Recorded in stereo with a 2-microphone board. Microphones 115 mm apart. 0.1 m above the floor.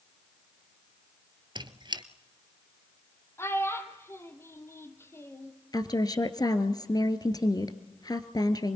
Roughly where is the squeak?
Right.